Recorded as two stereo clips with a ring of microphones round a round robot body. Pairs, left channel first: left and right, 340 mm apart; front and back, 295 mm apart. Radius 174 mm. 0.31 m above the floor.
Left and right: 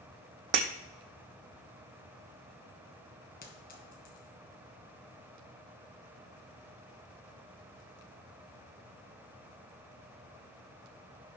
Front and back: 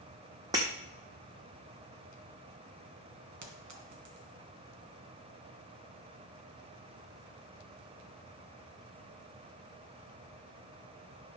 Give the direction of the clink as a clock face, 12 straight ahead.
7 o'clock.